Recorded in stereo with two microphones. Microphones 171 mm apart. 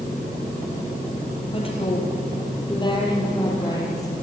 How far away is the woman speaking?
About 7 m.